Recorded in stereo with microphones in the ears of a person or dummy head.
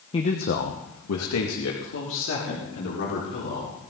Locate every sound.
0.1 s a man speaking: 20° left (ahead or behind), 1.1 m; by 3.7 s 65° left (ahead or behind), 5.5 m